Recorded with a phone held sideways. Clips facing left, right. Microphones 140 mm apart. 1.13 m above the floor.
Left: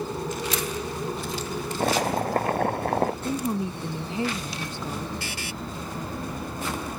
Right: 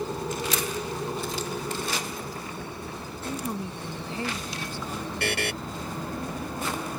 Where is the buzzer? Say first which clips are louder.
Right 6 dB; 65° right (ahead or behind).